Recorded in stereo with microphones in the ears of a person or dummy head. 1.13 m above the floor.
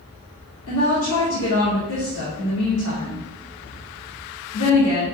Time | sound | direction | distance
0.7 | a woman speaking | 80° left | 2.5 m